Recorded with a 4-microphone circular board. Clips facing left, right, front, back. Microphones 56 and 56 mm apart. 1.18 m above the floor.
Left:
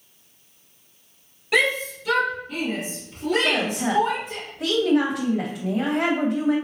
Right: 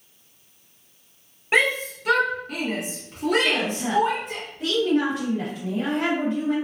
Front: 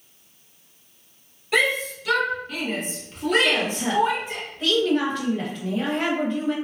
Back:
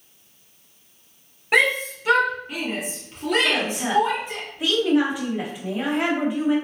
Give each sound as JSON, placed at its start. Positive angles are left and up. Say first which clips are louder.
{"t": 1.5, "sound": "a shout", "louder": "even, back 2 dB", "azimuth_deg": -145, "distance_m": 1.0}
{"t": 3.4, "sound": "a woman speaking", "louder": "left 1 dB, even", "azimuth_deg": 100, "distance_m": 0.9}